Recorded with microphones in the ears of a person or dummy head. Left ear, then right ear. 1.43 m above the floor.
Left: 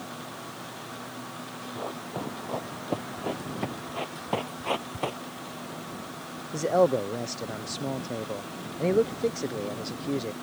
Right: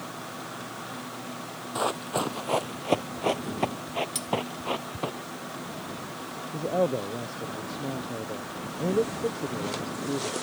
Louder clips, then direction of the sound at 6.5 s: Left 4 dB; 55° left (ahead or behind).